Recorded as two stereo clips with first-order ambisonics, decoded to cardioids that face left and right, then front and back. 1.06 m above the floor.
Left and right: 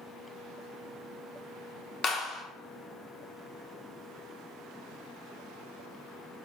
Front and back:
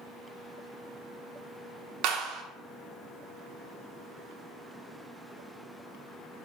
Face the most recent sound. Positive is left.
turn(degrees=155)